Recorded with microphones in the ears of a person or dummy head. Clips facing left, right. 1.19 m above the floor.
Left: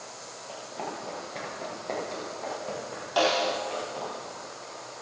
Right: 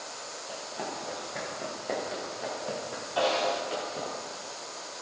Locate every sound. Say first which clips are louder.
0.5 s running footsteps: left 1 dB; 5° right (ahead or behind), 8 m; by 4.1 s 20° right (ahead or behind), 7.5 m
3.2 s a snare drum: left 2 dB; 80° left, 3.5 m